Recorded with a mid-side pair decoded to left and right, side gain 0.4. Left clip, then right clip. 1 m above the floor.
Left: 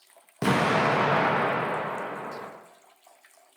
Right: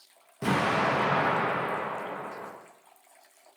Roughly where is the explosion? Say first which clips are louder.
Left 3 dB; ahead left.